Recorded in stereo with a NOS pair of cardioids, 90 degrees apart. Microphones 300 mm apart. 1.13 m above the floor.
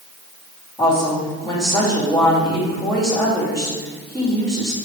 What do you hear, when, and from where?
0.8 s a woman speaking: 10° left, 2.5 m